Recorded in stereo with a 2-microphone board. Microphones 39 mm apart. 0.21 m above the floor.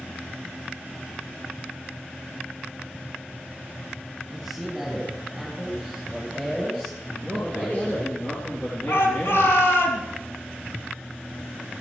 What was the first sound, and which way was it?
A man speaking, 5° left (ahead or behind).